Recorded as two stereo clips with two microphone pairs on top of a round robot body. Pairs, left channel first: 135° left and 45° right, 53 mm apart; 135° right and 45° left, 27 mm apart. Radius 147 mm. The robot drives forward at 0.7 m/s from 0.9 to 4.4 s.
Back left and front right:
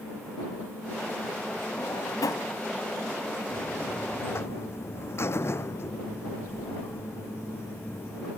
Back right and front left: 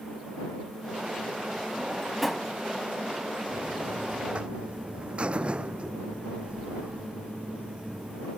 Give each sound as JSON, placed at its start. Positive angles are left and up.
{"t": 1.8, "sound": "a drawer", "azimuth_deg": 130}
{"t": 3.5, "sound": "a buzzer", "azimuth_deg": 95}